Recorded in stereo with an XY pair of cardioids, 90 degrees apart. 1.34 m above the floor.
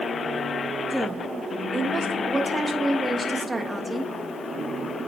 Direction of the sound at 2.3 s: 25° right.